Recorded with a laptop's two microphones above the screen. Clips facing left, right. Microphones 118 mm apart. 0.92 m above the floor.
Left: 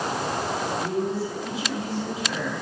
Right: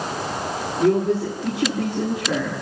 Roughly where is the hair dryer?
No hair dryer in this recording.